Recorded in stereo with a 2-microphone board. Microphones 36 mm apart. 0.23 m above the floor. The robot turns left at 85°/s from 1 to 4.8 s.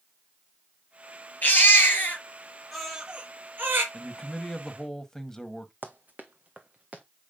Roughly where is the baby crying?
Left.